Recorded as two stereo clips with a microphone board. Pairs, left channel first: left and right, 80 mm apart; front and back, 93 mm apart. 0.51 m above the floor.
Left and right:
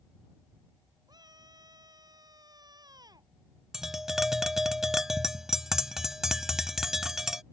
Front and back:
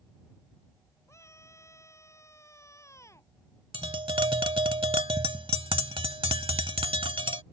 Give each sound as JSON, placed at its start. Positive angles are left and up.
{"t": 1.1, "sound": "a scream", "azimuth_deg": -60}
{"t": 3.7, "sound": "tapping", "azimuth_deg": -175}